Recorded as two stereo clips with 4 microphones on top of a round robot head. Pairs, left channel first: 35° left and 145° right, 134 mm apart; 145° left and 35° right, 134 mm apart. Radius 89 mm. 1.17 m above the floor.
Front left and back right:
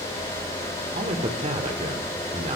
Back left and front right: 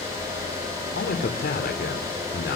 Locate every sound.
0.9 s a man speaking: 165° left, 3 m